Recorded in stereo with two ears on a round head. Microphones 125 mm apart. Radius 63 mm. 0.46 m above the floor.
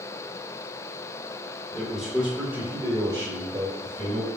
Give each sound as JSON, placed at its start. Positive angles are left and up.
{"t": 1.7, "sound": "a man speaking", "side_deg": 5, "distance_m": 1.4}